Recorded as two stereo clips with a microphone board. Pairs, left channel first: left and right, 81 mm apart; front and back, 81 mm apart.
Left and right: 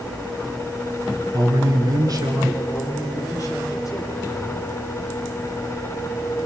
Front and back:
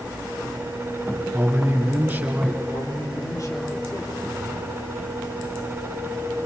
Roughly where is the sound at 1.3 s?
Behind right.